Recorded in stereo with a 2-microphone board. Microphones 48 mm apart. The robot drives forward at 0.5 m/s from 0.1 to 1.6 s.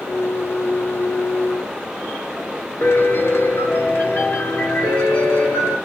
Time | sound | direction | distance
2.8 | a piano | 60° left (ahead or behind) | 0.8 m